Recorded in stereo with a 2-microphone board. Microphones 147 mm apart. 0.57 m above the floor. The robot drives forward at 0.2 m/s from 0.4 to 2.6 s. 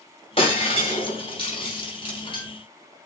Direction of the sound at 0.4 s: 40° left (ahead or behind).